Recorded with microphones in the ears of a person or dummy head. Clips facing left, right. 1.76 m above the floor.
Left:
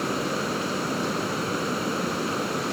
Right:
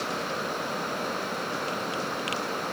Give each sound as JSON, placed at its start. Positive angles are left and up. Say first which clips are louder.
{"t": 0.0, "sound": "running water", "louder": "left 5 dB", "side_deg": 40}